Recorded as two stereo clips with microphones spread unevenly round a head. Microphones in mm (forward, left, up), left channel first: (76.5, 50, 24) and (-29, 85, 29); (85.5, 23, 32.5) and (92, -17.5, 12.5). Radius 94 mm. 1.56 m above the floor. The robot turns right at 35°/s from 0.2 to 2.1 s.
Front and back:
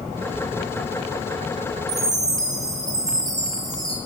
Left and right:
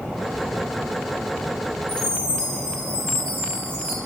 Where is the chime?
115° left, 1.3 m; by 4.0 s 120° left, 1.3 m.